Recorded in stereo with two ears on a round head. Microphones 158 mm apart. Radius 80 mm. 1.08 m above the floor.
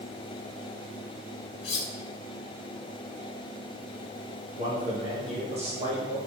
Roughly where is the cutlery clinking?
Left.